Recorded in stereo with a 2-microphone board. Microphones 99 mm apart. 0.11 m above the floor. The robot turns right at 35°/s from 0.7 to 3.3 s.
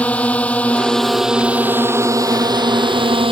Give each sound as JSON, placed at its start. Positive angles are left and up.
{"t": 0.0, "sound": "a drone", "azimuth_deg": 165}